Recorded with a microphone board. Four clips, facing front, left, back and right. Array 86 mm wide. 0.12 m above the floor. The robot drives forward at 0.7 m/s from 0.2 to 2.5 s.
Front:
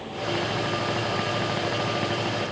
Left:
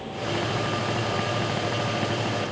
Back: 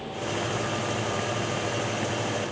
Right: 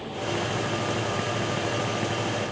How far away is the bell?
No bell in this recording.